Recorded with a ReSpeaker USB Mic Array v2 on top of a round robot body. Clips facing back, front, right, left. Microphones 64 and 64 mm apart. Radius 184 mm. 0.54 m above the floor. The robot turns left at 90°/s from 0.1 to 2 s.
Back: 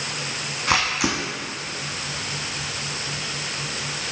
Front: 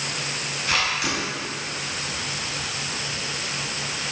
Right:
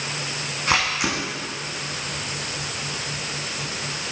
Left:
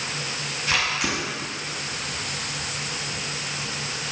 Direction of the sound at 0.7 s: 135° right.